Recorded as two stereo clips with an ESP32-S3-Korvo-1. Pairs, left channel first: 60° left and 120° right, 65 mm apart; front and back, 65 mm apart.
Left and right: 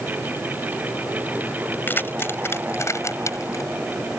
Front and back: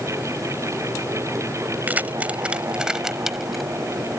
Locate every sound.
1.9 s keys jangling: 115° left; by 3.7 s 90° left